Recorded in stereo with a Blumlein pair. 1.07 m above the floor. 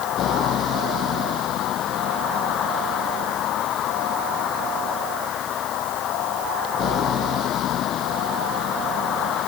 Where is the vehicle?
30° left.